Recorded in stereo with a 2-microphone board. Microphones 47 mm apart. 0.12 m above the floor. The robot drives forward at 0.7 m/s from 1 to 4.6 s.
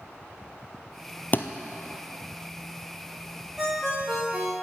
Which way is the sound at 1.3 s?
40° left (ahead or behind).